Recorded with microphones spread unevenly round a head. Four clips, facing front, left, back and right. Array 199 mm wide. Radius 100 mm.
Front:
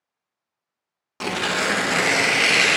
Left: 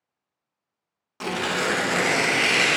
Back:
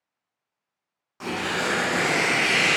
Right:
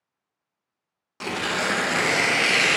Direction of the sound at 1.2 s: 5° right.